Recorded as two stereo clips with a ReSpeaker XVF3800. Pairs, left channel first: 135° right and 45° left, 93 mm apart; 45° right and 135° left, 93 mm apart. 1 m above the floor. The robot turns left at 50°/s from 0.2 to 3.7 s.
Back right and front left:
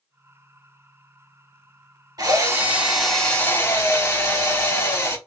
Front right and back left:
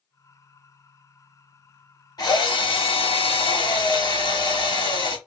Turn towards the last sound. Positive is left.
turn(degrees=-80)